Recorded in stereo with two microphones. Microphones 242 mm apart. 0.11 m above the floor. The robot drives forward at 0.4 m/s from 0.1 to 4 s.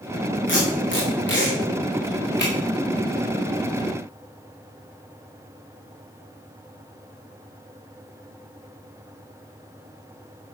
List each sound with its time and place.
0.5 s tape being pulled: 55° left (ahead or behind), 6 m; by 2.5 s 45° left (ahead or behind), 6.5 m